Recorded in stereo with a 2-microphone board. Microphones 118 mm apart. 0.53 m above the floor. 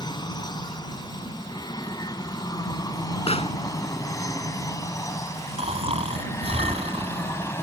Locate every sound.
0.0 s an aircraft: 35° left (ahead or behind); by 7.6 s 20° left (ahead or behind)
3.3 s a pop: 60° left (ahead or behind)
5.6 s snoring: 55° right (ahead or behind)